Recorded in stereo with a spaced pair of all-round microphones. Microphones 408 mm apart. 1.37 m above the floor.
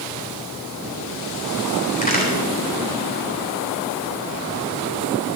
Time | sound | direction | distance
2.0 | a crack | 20° left (ahead or behind) | 3.5 m